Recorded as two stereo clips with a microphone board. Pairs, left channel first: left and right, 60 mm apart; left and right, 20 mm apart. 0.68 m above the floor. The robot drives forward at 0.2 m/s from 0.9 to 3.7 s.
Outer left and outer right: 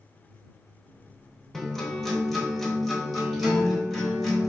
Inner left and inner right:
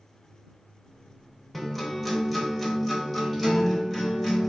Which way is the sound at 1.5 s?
5° left (ahead or behind).